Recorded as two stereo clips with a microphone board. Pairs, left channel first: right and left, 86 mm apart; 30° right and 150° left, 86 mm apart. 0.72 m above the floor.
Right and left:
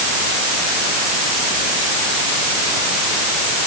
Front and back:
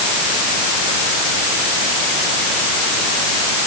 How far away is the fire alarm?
I don't hear a fire alarm.